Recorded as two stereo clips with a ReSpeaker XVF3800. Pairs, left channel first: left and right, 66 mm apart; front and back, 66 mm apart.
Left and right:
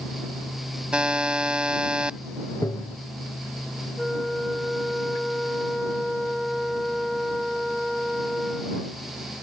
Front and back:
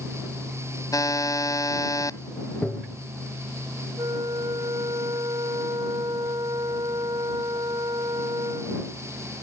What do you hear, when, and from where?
0.9 s a buzzer: 15° right
2.6 s tapping: 70° left
4.0 s a flute: straight behind